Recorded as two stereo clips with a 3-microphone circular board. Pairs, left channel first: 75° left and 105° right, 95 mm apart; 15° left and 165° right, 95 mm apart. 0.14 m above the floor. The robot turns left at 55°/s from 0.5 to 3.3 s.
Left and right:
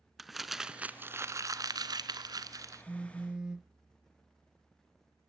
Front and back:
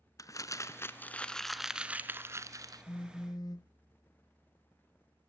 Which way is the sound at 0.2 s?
15° right.